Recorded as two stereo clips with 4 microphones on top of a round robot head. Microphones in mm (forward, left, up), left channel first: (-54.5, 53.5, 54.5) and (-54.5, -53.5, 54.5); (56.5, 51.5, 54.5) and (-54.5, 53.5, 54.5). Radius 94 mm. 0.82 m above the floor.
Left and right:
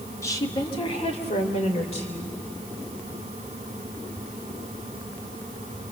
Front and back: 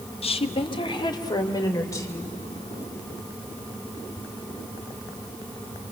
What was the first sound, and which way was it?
A woman speaking, 25° left.